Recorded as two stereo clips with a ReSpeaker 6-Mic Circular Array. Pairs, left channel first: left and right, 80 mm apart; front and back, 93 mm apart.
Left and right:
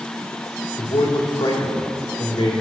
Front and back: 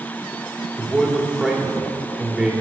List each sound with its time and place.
0.8 s a man speaking: 95° left, 2.5 m